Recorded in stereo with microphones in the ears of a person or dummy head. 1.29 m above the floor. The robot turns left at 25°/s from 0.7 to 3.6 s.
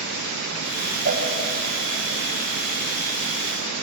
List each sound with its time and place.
1.1 s a cowbell: 65° right (ahead or behind), 1.0 m; by 1.2 s 70° right (ahead or behind), 1.0 m